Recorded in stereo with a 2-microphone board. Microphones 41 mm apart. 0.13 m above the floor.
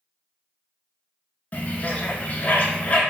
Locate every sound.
1.5 s a bird: 40° left (ahead or behind), 0.5 m